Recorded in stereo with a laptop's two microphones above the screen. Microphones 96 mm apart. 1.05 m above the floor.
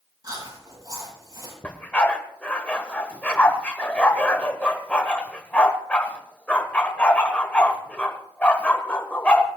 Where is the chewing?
40° right (ahead or behind), 8 m.